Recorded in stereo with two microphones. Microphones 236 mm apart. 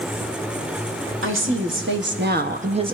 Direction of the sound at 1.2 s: 60° right (ahead or behind).